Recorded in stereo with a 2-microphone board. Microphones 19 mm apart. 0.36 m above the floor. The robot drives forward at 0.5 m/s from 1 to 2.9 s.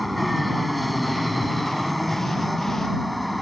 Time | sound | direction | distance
0.0 | an aircraft | centre (ahead or behind) | ?